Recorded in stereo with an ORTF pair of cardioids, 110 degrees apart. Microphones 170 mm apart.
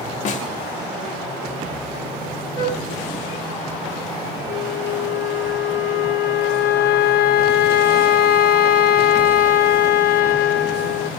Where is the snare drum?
50° left, 0.9 m.